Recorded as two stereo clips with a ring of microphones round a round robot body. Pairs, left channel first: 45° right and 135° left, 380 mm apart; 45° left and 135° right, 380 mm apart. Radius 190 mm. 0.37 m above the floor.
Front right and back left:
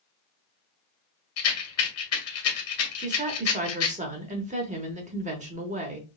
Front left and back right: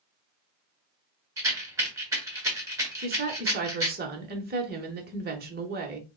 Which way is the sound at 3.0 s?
175° right.